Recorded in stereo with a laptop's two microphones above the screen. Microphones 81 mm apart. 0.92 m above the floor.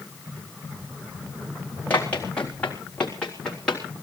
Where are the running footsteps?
20° left (ahead or behind), 3.5 m; by 3.8 s 5° left (ahead or behind), 4.5 m.